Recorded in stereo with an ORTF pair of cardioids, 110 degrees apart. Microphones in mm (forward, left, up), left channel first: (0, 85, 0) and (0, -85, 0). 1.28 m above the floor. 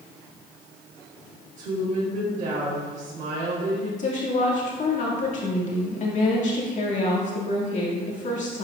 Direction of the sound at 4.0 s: 45° left.